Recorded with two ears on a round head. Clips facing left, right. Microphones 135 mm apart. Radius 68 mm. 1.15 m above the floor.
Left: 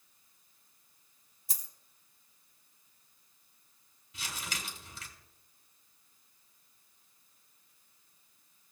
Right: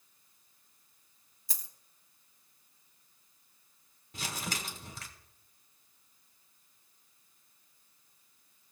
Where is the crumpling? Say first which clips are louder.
Right 4 dB; 40° right (ahead or behind), 1.6 m.